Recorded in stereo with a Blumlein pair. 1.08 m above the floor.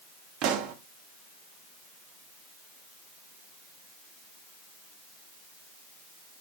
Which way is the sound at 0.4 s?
40° right.